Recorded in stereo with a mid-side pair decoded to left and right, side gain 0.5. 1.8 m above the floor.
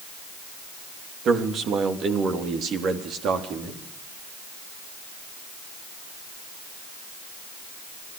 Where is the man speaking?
60° right, 3 m; by 3.8 s 65° right, 4.5 m.